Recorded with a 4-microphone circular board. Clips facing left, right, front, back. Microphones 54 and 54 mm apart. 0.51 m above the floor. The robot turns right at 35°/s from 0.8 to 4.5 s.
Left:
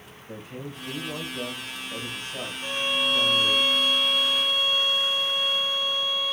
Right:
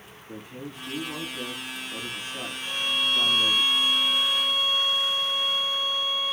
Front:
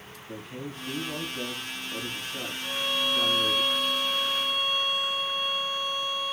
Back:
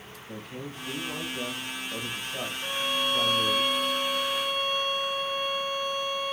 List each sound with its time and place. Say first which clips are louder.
0.3 s a man speaking: left 1 dB, front 1 dB; 90° left, 2.5 m; by 3.6 s 170° right, 2.5 m
2.6 s a violin: left 2 dB, even; 150° left, 0.8 m; by 6.3 s 145° right, 0.8 m